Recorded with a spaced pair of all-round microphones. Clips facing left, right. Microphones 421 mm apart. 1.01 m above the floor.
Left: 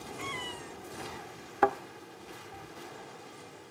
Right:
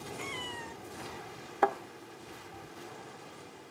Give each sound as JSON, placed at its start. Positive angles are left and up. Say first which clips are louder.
{"t": 0.2, "sound": "a cat meowing", "louder": "left 1 dB", "side_deg": 60, "distance_m": 0.6}
{"t": 1.6, "sound": "a thud", "louder": "left 2 dB", "side_deg": 25, "distance_m": 0.6}